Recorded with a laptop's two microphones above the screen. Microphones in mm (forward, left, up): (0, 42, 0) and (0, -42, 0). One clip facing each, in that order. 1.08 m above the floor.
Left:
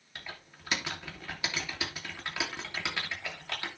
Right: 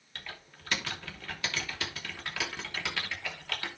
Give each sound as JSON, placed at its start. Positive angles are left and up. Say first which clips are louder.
{"t": 0.1, "sound": "typing on a keyboard", "louder": "even", "side_deg": 15, "distance_m": 3.0}